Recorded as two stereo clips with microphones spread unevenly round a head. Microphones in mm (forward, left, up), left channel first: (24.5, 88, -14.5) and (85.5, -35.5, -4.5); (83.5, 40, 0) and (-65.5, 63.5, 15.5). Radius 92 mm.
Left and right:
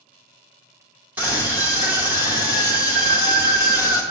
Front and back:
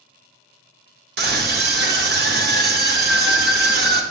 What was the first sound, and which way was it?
A scream, 145° right.